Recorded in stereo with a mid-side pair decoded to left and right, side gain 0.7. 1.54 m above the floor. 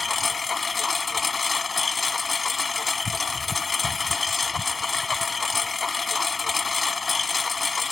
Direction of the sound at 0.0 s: 20° left.